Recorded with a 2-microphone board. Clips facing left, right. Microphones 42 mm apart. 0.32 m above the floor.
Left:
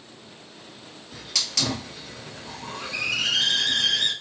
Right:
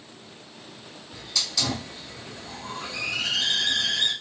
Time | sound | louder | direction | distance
1.1 | a hiss | even | 65° left (ahead or behind) | 1.4 m